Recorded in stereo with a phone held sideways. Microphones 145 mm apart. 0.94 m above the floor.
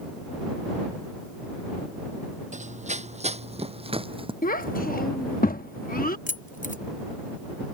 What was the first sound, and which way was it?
Running footsteps, 55° right (ahead or behind).